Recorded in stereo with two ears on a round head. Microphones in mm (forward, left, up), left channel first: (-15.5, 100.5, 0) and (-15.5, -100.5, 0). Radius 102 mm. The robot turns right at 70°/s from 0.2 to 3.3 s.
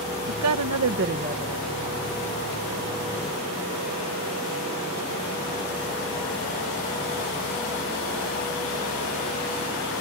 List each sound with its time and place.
0.3 s a woman speaking: 105° right; by 1.6 s 10° right